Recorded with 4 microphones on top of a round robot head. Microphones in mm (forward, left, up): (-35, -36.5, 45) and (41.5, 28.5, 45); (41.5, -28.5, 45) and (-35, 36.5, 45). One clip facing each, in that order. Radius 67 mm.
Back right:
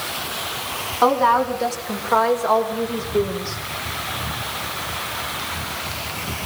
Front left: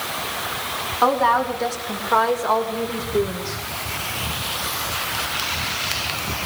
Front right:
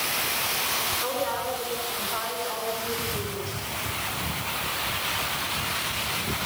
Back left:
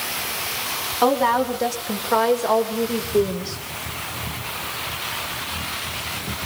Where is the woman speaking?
135° left, 6.5 m; by 3.6 s 120° left, 8 m.